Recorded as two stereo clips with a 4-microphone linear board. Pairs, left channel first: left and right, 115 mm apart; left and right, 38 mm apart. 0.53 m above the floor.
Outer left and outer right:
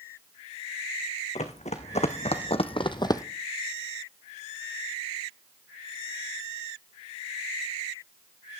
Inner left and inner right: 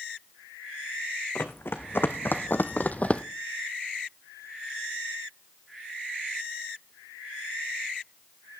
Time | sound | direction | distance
1.4 | running footsteps | 75° left (ahead or behind) | 1.8 m